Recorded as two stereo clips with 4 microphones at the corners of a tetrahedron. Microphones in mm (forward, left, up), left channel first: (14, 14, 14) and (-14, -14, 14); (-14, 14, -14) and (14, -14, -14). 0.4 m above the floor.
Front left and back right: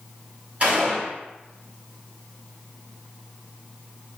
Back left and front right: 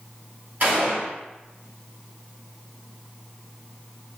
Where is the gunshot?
75° right, 1.7 m.